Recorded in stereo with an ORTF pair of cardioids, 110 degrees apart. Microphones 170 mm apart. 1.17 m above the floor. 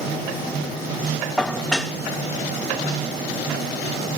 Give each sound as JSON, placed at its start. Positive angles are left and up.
{"t": 1.4, "sound": "dishes clattering", "azimuth_deg": 5, "distance_m": 0.8}